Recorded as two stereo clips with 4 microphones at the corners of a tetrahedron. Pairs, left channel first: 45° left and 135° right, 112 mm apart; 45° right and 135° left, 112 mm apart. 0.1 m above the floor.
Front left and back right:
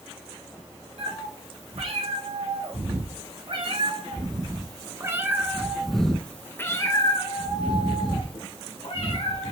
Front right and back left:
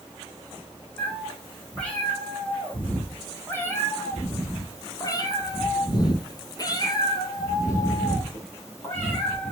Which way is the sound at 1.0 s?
125° right.